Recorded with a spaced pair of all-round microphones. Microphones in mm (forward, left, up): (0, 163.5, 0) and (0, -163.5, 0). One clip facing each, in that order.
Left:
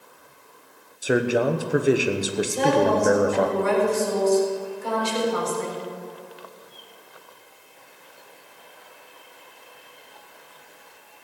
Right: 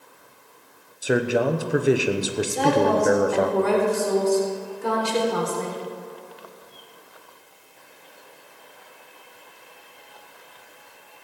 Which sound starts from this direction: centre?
A man speaking, at 1.0 s.